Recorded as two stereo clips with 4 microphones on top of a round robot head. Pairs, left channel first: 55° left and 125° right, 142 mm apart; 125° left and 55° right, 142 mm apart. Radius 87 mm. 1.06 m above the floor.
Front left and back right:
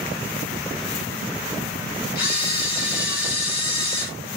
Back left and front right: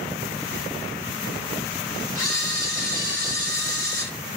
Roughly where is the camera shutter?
Ahead left.